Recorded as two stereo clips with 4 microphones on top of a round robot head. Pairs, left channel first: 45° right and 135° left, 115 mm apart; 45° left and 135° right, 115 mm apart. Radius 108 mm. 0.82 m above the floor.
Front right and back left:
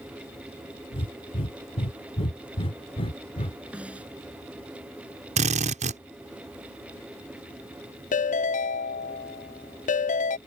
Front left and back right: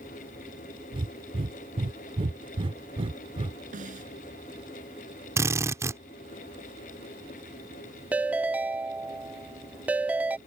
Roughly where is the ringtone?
Ahead right.